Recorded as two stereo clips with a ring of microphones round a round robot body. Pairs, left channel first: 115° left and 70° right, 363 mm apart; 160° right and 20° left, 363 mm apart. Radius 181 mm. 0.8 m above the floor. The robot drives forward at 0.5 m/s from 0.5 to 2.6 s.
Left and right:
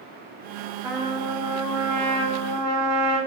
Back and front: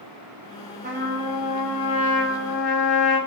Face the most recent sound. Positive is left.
turn(degrees=-175)